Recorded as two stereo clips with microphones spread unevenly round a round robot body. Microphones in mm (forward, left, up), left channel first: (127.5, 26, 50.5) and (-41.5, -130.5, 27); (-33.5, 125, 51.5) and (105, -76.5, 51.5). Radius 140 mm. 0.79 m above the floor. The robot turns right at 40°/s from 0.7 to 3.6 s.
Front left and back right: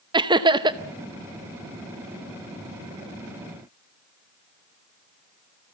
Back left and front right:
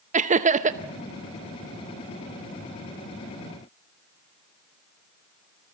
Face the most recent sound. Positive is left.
turn(degrees=25)